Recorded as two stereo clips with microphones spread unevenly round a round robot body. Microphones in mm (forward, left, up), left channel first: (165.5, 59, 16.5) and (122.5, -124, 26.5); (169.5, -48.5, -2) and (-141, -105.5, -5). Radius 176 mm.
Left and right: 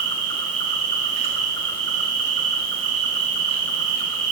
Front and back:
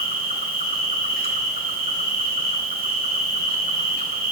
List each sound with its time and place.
0.0 s an insect: 105° right, 1.3 m